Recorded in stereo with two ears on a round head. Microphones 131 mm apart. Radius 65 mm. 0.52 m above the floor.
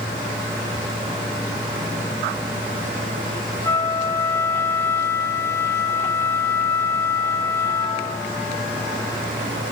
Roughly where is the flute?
Centre.